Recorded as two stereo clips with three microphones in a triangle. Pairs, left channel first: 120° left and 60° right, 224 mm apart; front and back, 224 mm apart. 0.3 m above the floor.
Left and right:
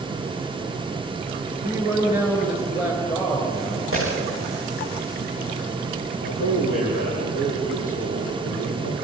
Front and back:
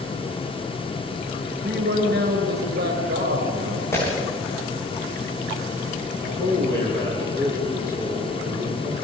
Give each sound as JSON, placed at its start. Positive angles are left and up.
{"t": 1.5, "sound": "a man speaking", "azimuth_deg": -140, "distance_m": 5.5}
{"t": 3.9, "sound": "breaking glass", "azimuth_deg": -80, "distance_m": 10.0}
{"t": 6.2, "sound": "a man speaking", "azimuth_deg": -75, "distance_m": 10.0}